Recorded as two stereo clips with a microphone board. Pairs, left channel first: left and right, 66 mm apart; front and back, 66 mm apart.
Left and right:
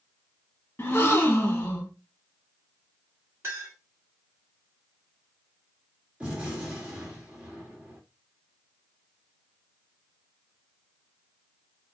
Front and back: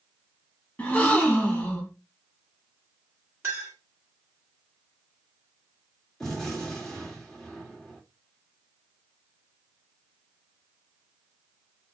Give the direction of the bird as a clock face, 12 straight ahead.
I don't hear a bird.